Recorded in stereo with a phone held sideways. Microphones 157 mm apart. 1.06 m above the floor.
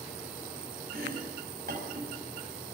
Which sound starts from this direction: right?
Chopping, at 0.9 s.